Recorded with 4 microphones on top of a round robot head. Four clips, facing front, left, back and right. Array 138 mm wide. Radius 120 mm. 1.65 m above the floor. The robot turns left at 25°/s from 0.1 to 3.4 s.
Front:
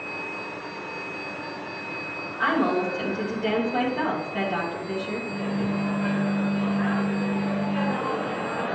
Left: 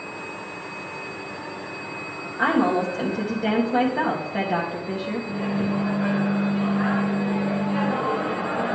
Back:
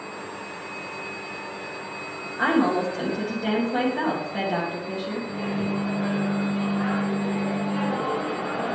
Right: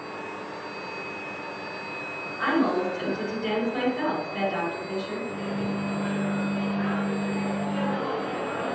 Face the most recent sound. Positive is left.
turn(degrees=95)